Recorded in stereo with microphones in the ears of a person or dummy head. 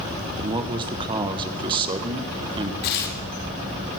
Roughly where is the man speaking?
Right.